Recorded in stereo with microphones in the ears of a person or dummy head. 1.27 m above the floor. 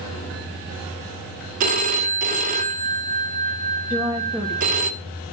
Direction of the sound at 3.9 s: 15° right (ahead or behind).